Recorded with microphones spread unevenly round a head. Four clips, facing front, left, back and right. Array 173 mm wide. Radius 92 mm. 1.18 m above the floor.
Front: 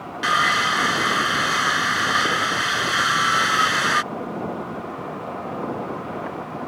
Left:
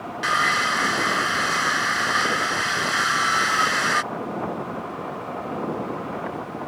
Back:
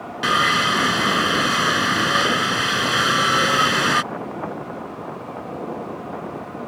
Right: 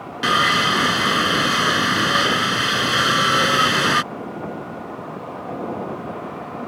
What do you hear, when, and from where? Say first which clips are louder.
0.2 s sawing: right 4 dB, back 1 dB; 130° right